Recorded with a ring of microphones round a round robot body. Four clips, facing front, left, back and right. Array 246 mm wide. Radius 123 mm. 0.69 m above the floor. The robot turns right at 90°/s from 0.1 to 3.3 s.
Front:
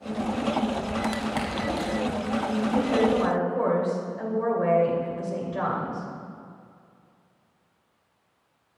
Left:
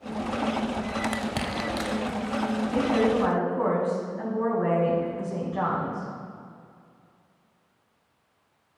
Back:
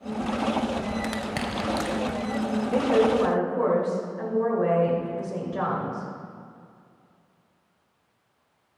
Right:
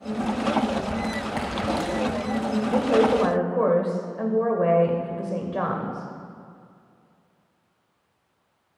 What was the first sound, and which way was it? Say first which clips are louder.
Crushing: right 1 dB, front 2 dB; 95° left.